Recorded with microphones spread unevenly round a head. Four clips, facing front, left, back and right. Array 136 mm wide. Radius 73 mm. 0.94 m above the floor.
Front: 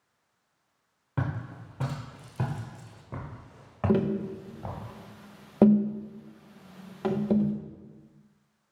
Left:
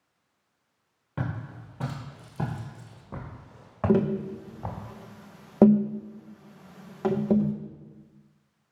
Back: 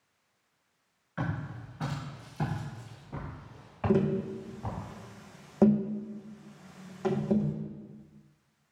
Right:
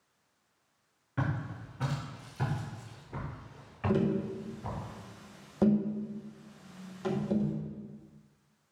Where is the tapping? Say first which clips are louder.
Left 5 dB, front 1 dB; 65° left, 0.7 m.